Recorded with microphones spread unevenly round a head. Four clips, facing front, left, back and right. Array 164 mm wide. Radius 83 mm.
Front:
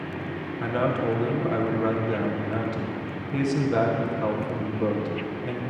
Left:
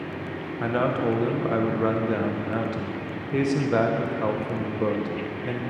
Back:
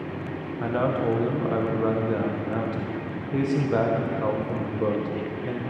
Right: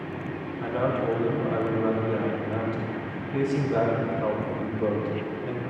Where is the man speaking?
90° left, 0.8 m.